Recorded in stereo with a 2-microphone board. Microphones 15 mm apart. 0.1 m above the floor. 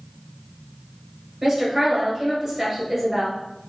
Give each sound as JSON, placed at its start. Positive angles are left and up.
{"t": 1.4, "sound": "a woman speaking", "side_deg": -15, "distance_m": 1.5}